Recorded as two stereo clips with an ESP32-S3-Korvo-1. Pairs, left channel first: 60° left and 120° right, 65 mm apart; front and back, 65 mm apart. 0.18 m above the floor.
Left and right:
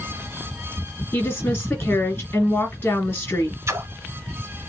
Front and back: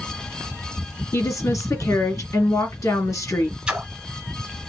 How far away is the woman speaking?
About 2.5 m.